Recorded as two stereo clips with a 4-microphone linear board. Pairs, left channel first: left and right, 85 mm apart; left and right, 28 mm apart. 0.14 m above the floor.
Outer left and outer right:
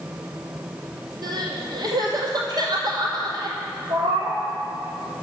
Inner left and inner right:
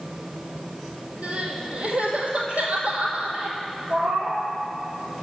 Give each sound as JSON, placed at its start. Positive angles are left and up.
{"t": 1.2, "sound": "crying", "side_deg": -60, "distance_m": 1.3}
{"t": 3.9, "sound": "a cat meowing", "side_deg": -85, "distance_m": 1.6}